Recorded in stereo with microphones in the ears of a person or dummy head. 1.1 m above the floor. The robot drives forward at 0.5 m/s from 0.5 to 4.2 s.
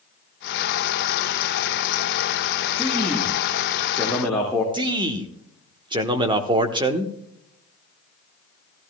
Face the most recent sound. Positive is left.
turn(degrees=-25)  # may be behind; listen again after turning